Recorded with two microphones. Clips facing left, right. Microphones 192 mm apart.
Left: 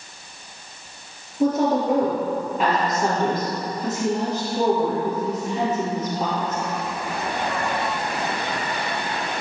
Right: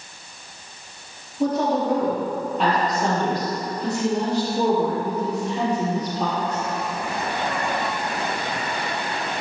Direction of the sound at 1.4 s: 5° left (ahead or behind).